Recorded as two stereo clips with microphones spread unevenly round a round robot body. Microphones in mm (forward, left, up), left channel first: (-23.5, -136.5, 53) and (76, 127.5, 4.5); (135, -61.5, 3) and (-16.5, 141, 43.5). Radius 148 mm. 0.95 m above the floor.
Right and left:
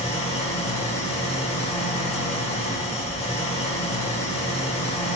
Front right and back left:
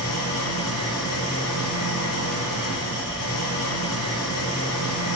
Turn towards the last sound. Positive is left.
turn(degrees=-45)